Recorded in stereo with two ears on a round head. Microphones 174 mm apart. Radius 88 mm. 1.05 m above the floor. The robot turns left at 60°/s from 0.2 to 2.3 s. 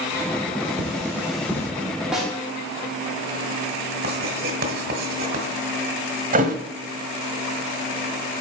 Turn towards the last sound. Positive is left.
turn(degrees=-45)  # may be behind; listen again after turning